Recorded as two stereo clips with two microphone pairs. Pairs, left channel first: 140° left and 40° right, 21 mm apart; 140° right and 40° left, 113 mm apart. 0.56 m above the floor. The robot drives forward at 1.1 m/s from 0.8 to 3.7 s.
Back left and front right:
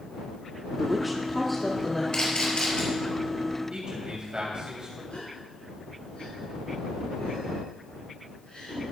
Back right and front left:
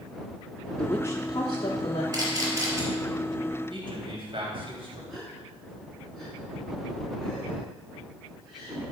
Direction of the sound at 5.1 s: 130° left.